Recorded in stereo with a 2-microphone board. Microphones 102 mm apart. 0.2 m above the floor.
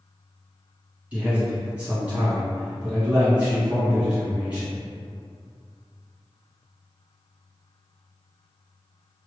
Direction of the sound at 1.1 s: 15° right (ahead or behind).